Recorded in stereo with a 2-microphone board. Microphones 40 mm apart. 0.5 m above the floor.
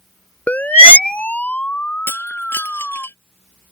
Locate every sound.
0.5 s a siren: 40° left (ahead or behind); by 3.1 s 15° left (ahead or behind)
2.1 s breaking glass: 75° left (ahead or behind)